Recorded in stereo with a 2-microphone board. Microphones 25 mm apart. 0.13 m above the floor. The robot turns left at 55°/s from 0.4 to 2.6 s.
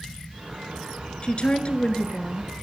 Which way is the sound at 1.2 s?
110° left.